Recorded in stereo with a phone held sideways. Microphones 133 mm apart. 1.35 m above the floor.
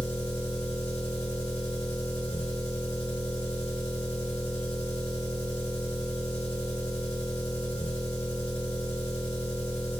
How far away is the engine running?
About 1.4 m.